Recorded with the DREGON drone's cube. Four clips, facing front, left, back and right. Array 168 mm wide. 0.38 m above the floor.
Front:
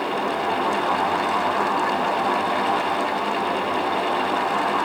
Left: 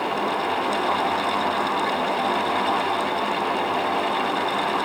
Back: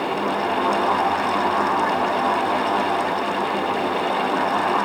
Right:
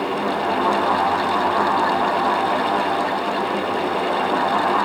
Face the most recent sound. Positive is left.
No sound to turn to.